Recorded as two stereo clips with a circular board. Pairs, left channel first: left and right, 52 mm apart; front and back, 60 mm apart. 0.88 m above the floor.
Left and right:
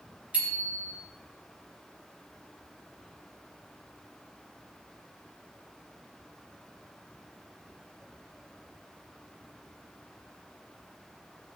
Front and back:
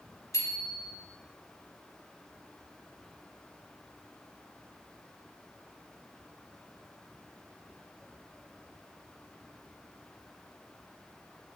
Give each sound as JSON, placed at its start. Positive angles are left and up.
{"t": 0.3, "sound": "a bicycle bell", "azimuth_deg": -30, "distance_m": 4.0}